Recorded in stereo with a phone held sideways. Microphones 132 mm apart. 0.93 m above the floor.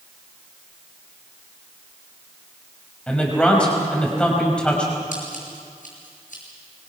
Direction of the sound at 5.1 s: 80° left.